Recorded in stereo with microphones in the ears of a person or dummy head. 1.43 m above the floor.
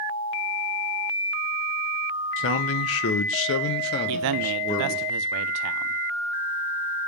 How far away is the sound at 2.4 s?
About 0.9 m.